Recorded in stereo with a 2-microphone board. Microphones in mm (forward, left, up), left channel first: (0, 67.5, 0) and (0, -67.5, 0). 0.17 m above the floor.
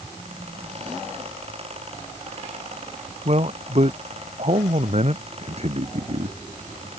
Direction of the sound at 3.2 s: 50° right (ahead or behind).